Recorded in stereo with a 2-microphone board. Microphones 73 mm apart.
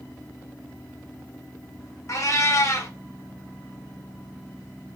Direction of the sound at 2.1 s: 45° left (ahead or behind).